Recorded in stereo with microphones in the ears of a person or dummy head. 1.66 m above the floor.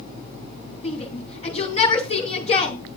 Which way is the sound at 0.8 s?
35° left (ahead or behind).